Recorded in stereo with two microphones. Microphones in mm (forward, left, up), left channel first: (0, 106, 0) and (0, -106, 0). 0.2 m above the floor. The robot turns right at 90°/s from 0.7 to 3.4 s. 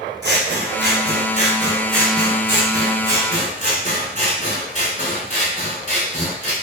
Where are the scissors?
105° right, 1.4 m; by 6.5 s 135° left, 1.4 m.